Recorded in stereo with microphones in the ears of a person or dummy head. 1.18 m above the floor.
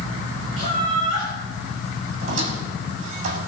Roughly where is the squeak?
Right.